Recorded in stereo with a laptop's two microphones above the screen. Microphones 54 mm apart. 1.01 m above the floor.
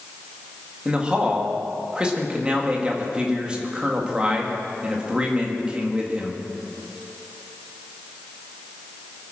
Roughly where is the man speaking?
Centre.